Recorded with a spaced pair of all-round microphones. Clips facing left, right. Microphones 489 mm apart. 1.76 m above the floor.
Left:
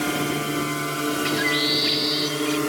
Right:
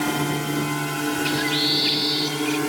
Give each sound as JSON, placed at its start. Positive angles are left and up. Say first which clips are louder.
{"t": 0.0, "sound": "a drone", "louder": "right 1 dB", "side_deg": -15}
{"t": 1.2, "sound": "a bird", "louder": "even", "side_deg": -55}